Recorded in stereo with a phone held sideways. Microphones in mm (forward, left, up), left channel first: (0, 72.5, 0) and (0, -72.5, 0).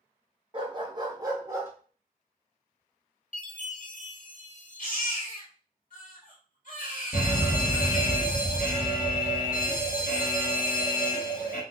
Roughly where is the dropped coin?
I don't hear a dropped coin.